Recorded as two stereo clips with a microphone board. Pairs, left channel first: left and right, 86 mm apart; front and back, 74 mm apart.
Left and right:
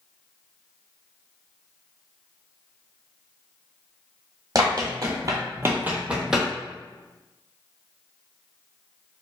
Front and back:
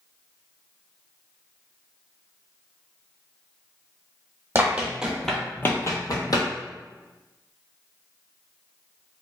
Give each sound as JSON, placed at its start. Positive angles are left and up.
{"t": 4.5, "sound": "running footsteps", "azimuth_deg": -125, "distance_m": 0.8}